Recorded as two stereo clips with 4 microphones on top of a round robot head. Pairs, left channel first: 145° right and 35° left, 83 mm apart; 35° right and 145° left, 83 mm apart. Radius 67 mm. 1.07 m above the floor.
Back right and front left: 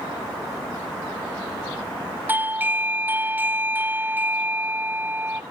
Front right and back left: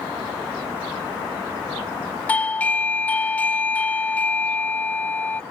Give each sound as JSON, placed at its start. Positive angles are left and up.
{"t": 2.3, "sound": "a doorbell", "azimuth_deg": 10}